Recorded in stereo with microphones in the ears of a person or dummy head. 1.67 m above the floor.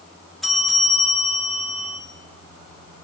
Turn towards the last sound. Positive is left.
turn(degrees=-5)  # may be behind; listen again after turning